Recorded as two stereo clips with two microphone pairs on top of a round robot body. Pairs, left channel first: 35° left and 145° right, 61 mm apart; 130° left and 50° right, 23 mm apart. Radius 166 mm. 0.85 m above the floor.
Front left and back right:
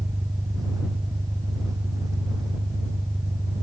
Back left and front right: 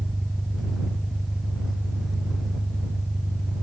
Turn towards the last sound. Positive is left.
turn(degrees=-125)